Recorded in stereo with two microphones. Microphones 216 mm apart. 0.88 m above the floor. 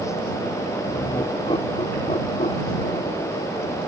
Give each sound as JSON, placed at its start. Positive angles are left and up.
{"t": 0.9, "sound": "laughter", "side_deg": 20}